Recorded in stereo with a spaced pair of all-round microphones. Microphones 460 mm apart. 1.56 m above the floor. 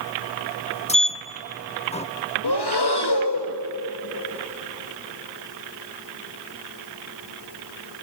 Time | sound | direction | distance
0.9 | a sliding door | 15° left (ahead or behind) | 0.5 m
2.4 | breathing | 55° left (ahead or behind) | 1.5 m